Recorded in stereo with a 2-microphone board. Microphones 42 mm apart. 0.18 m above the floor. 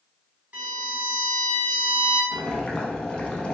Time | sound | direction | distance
0.5 | a violin | 35° right (ahead or behind) | 0.9 m
2.3 | boiling | 20° left (ahead or behind) | 0.6 m